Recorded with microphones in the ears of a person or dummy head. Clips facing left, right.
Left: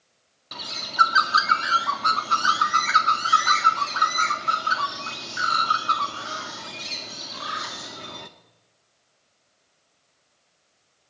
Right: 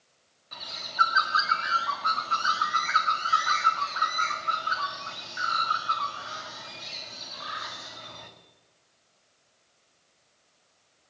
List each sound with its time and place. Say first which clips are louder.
0.5 s a bird: left 5 dB; 55° left (ahead or behind), 1.7 m